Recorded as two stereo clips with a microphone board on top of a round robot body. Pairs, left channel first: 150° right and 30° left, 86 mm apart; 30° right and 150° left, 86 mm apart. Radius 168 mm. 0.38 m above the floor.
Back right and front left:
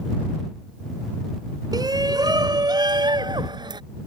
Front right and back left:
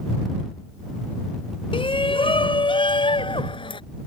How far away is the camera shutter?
No camera shutter in this recording.